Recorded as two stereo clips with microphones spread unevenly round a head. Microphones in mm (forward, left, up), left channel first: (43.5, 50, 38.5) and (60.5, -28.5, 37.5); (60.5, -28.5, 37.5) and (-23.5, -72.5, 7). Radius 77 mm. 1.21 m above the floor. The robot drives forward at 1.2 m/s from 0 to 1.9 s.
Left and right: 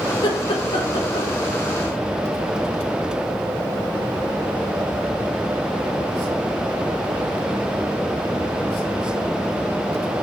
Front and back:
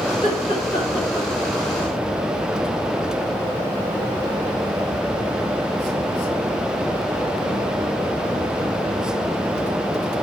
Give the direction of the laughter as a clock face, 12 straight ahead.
9 o'clock.